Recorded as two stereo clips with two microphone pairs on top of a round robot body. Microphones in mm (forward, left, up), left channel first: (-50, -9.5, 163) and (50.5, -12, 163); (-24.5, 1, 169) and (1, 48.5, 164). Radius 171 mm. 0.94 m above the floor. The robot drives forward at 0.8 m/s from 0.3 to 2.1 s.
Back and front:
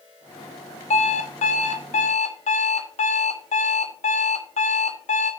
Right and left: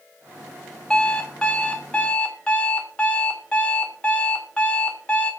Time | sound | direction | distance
0.9 | an alarm clock | 165° left | 1.2 m